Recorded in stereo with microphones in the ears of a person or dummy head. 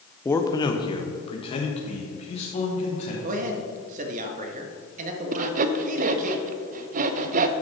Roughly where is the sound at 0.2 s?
Centre.